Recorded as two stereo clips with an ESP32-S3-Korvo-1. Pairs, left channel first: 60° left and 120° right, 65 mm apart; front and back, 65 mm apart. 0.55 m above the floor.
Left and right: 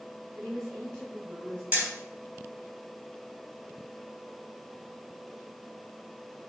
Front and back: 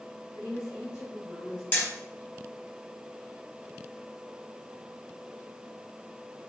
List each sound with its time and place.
0.3 s a woman speaking: 20° right, 2.5 m
1.7 s hammering: 55° right, 3.5 m